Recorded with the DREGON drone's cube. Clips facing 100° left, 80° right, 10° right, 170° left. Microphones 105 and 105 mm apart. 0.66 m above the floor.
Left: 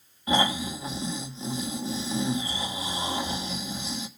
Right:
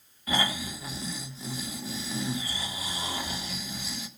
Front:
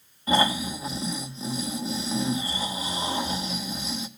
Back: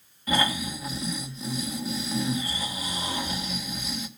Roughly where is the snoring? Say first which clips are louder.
Left 5 dB, front 3 dB; ahead left.